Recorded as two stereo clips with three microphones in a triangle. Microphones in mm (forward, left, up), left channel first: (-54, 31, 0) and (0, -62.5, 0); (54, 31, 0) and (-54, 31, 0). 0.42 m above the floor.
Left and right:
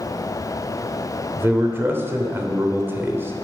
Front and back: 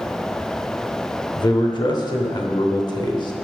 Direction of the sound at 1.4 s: 5° right.